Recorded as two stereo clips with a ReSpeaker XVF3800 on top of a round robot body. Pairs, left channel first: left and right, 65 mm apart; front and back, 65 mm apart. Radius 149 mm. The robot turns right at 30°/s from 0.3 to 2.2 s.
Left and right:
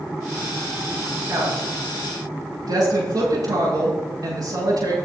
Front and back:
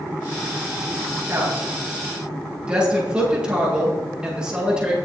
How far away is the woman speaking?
About 9.5 m.